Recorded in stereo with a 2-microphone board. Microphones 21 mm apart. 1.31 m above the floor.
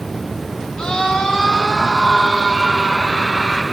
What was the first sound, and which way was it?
A scream, 50° left (ahead or behind).